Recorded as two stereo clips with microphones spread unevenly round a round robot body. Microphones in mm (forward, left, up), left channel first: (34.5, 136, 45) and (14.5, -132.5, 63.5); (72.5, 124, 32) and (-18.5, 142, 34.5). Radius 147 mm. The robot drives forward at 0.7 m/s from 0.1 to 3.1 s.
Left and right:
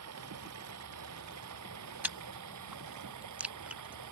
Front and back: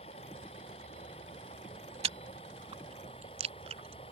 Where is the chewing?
175° right; by 4.1 s straight behind.